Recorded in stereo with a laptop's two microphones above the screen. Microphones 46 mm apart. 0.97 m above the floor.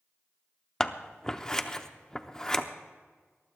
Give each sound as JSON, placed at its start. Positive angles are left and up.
{"t": 0.8, "sound": "scissors", "side_deg": 15, "distance_m": 0.6}